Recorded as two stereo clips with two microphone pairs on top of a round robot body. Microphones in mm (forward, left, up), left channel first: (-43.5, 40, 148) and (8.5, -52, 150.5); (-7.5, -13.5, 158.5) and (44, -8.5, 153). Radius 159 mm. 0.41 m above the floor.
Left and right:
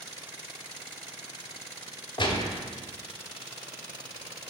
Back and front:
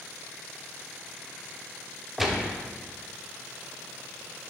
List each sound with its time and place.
2.2 s a gunshot: 85° left, 1.1 m